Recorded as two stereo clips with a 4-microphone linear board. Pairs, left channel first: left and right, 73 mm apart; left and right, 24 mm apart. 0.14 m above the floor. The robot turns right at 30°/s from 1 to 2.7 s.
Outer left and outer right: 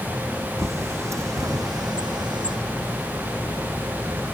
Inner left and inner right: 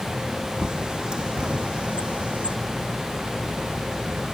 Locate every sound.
0.6 s a bird: 40° right (ahead or behind); by 2.6 s 80° right